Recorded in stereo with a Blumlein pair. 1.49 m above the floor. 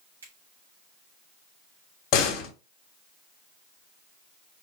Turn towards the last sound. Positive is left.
turn(degrees=35)